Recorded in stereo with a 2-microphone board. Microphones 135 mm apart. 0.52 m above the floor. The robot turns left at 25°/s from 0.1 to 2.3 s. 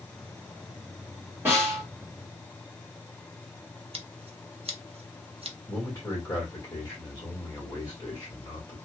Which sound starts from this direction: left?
A man speaking, at 5.7 s.